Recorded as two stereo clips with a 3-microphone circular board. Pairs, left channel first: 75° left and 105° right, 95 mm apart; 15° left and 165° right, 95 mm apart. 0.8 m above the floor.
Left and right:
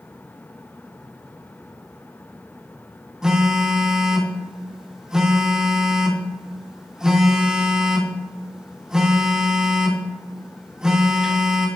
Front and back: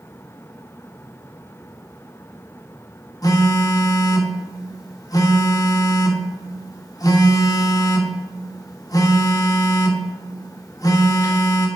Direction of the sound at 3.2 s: 25° right.